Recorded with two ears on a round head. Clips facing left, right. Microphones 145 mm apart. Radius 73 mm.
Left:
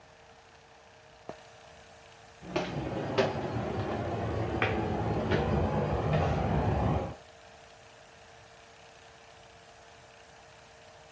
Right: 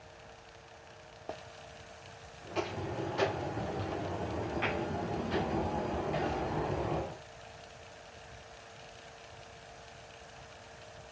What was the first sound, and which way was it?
Footsteps, 70° left (ahead or behind).